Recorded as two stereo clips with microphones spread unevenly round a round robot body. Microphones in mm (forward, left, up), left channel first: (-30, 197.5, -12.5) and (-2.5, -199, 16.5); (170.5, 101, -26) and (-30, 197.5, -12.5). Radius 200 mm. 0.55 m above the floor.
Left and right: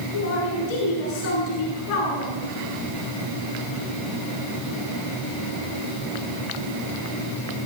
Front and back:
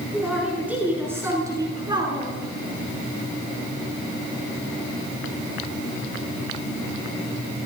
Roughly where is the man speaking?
Ahead left.